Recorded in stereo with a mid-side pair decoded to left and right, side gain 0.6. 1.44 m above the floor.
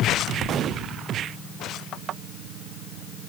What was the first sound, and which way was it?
Only background noise.